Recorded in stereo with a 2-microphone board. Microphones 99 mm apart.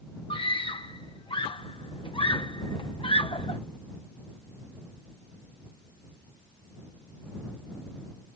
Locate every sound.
0.3 s a scream: 60° left (ahead or behind)